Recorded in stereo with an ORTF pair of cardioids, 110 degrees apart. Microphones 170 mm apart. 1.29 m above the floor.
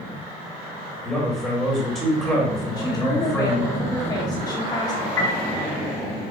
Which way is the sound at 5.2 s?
15° left.